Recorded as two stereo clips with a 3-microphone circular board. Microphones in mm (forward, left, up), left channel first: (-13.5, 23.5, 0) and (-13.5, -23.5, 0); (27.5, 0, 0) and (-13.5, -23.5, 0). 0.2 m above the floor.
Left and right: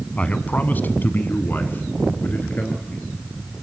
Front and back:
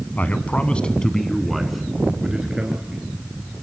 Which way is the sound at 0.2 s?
45° left.